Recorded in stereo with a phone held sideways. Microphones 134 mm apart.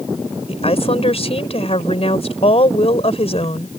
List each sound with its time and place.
0.5 s a woman speaking: 50° left (ahead or behind)